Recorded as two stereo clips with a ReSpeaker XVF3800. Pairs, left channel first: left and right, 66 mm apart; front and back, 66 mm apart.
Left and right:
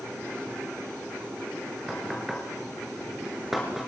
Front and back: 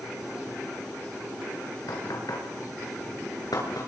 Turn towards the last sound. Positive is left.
turn(degrees=-5)